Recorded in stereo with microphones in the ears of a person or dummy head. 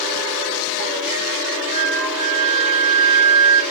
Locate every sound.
1.7 s a flute: centre (ahead or behind), 2 m